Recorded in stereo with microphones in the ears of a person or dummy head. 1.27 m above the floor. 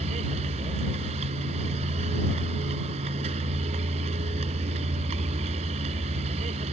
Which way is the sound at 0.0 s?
35° right (ahead or behind).